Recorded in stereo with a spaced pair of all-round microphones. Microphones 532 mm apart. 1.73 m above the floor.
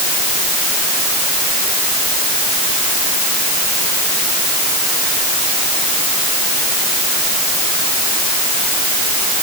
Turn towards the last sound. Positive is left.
No sound to turn to.